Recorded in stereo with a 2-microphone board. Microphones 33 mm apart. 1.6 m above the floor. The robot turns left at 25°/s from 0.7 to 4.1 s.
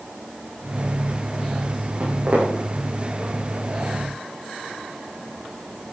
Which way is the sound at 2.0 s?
70° right (ahead or behind).